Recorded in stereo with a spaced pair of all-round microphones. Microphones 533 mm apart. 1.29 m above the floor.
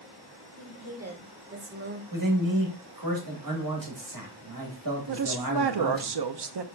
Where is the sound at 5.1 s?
50° right (ahead or behind), 0.5 m.